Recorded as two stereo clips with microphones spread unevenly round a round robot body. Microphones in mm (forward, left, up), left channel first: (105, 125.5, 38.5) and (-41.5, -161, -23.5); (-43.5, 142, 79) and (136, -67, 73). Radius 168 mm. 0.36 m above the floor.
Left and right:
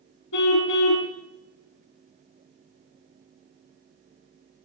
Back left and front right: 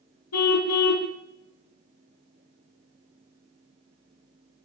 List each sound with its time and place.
0.3 s a car horn: 105° left, 2 m